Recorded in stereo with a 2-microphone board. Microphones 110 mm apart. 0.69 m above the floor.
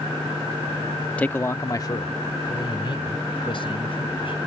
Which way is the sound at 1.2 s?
10° left (ahead or behind).